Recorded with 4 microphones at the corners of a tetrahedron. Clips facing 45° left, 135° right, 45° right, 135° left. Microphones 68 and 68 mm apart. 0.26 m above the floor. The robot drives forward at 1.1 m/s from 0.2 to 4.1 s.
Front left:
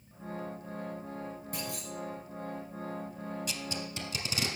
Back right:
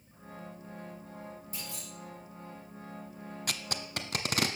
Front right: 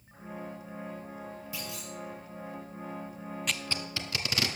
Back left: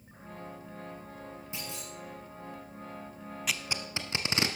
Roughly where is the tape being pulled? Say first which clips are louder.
Even, back left 1 dB; behind right.